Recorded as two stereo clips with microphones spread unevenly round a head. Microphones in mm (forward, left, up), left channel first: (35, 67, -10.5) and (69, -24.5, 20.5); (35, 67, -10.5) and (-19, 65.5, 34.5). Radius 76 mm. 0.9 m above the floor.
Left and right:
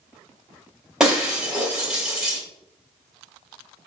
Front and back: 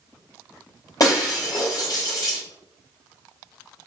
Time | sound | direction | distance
1.0 | breaking glass | 10° left | 1.8 m